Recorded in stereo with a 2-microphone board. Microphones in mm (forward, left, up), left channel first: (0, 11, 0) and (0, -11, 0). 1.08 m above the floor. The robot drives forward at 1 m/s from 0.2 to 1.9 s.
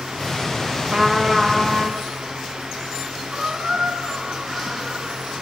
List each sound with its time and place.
0.9 s a trumpet: 40° right (ahead or behind), 0.8 m; by 2.0 s 15° right (ahead or behind), 1.7 m
3.3 s a squeak: 40° right (ahead or behind), 1.7 m